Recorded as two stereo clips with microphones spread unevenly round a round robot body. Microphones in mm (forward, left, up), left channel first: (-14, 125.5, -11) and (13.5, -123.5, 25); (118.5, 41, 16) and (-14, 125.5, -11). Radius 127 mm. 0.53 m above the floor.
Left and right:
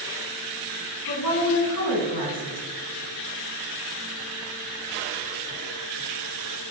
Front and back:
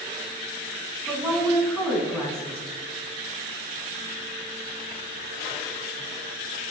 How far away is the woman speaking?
About 5.5 m.